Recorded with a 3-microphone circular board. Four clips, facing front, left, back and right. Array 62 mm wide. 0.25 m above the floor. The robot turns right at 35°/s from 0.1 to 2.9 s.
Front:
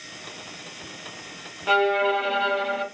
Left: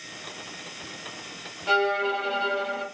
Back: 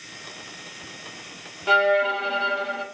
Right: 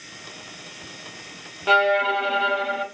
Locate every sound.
1.7 s a violin: 85° right, 0.7 m; by 2.9 s 45° right, 0.7 m